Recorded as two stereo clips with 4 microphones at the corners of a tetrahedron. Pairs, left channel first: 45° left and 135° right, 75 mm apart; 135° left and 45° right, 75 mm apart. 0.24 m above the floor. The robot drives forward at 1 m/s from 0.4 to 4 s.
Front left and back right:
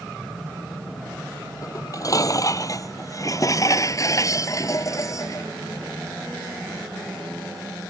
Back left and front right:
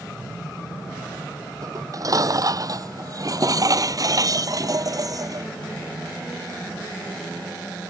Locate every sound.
1.6 s dishes clattering: 5° right